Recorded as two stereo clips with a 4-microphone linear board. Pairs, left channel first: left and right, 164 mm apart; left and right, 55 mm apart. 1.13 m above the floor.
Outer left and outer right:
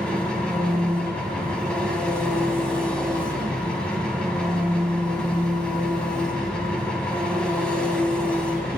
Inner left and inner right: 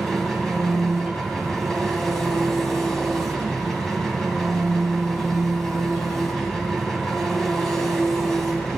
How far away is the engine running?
About 3 m.